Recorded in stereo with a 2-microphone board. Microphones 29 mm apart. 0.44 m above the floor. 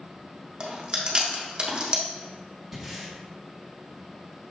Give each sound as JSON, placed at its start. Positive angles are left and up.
{"t": 0.6, "sound": "chewing", "side_deg": -30, "distance_m": 0.9}
{"t": 2.7, "sound": "breathing", "side_deg": -5, "distance_m": 1.2}